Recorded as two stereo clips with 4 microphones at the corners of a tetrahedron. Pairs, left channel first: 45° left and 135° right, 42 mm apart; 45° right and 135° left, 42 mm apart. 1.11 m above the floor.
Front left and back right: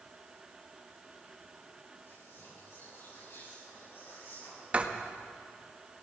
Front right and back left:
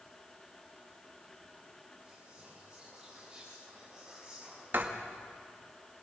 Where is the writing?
170° left, 1.8 m.